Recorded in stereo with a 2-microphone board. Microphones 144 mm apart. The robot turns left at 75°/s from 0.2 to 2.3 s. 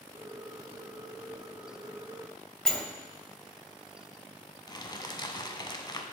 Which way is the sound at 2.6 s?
5° left (ahead or behind).